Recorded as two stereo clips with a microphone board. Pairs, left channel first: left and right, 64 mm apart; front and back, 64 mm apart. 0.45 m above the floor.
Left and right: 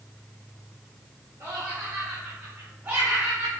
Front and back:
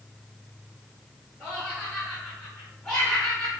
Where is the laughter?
95° right, 2 m; by 3.5 s 55° right, 1.5 m.